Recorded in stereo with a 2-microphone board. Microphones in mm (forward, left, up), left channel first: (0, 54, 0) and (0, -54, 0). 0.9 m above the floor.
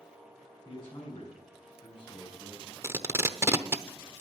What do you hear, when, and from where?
0.7 s a man speaking: 55° left (ahead or behind), 4.5 m
2.8 s tape being pulled: 25° right (ahead or behind), 0.8 m